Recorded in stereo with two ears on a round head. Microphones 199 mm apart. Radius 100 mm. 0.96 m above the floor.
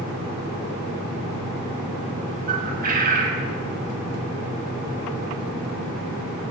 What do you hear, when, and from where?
2.5 s a bird: 40° right (ahead or behind), 3.5 m